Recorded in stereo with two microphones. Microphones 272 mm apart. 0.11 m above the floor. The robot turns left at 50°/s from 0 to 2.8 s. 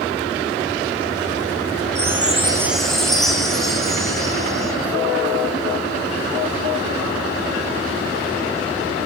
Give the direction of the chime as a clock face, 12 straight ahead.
5 o'clock.